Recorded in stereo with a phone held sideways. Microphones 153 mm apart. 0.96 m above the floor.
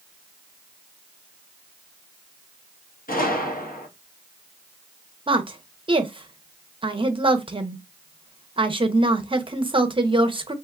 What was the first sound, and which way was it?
A gunshot, 70° left (ahead or behind).